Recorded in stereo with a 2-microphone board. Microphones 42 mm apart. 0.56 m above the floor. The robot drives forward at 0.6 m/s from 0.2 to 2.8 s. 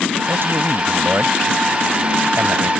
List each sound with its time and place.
0.3 s a man speaking: 70° right (ahead or behind)